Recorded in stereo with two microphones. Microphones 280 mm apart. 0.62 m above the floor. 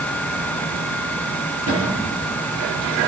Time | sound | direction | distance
1.7 | a cupboard door | 60° right (ahead or behind) | 7.5 m